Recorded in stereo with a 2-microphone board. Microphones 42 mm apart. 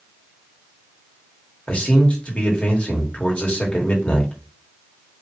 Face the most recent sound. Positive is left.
turn(degrees=30)  # may be behind; listen again after turning